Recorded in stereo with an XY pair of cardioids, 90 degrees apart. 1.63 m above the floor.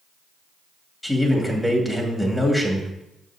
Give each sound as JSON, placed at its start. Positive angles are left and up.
{"t": 1.0, "sound": "a man speaking", "azimuth_deg": 10, "distance_m": 2.5}